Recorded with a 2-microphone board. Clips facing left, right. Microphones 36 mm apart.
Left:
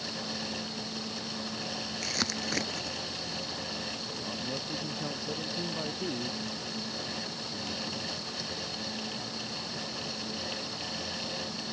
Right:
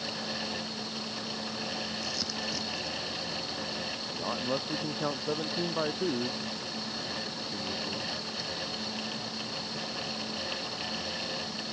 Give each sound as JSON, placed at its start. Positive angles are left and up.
{"t": 2.0, "sound": "crumpling", "side_deg": 65}
{"t": 4.1, "sound": "a man speaking", "side_deg": -40}